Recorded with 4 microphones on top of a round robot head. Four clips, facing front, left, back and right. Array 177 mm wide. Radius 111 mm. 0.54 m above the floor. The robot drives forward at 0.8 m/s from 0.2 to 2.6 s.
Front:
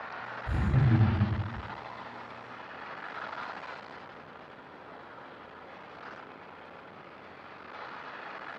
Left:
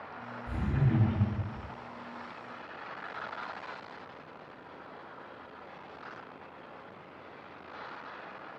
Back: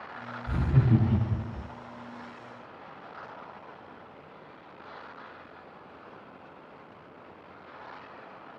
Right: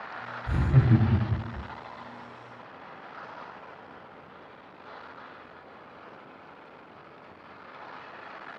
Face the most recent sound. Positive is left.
turn(degrees=-135)